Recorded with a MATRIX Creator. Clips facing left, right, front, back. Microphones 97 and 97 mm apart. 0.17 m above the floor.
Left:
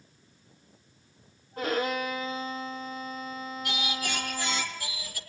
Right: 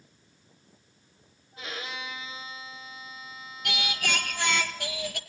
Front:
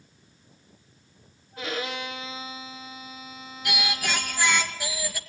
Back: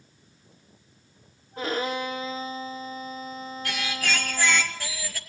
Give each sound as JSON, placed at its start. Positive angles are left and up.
{"t": 1.6, "sound": "a violin", "azimuth_deg": 130, "distance_m": 1.6}
{"t": 3.6, "sound": "singing", "azimuth_deg": -75, "distance_m": 1.9}